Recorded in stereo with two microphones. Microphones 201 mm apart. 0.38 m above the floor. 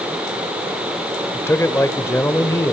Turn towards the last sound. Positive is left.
turn(degrees=10)  # may be behind; listen again after turning